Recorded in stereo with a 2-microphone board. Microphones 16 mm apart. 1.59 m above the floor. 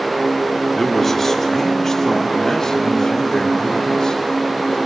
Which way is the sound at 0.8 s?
10° left (ahead or behind).